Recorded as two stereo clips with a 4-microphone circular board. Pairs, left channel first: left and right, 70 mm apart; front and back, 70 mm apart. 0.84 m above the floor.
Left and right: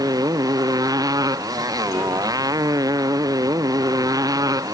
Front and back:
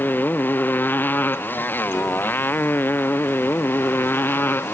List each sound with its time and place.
0.0 s a motorcycle: 65° right; by 4.8 s 60° right